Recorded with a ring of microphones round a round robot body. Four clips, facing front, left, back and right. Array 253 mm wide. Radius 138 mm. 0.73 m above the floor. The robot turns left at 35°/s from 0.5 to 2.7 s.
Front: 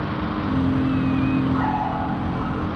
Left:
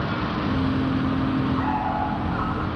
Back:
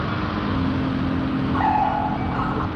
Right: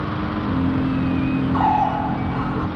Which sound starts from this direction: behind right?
A bird, at 1.5 s.